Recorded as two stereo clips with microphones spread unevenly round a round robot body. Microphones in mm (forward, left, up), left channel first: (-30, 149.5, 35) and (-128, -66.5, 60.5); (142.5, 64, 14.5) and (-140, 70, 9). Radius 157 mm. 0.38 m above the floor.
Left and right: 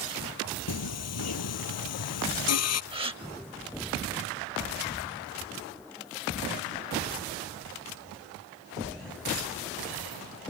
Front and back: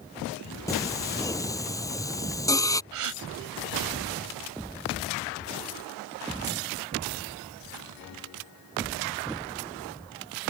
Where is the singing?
75° left.